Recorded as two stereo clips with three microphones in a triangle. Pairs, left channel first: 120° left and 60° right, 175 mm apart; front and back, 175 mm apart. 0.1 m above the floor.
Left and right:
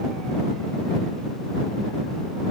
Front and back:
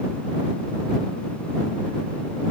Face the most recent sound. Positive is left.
No sound to turn to.